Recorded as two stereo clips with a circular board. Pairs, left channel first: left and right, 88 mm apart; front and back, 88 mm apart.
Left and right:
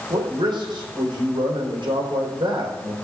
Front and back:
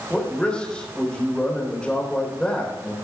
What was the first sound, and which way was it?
A man speaking, 75° right.